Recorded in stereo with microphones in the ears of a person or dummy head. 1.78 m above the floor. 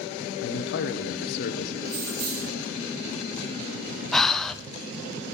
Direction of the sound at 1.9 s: 55° right (ahead or behind).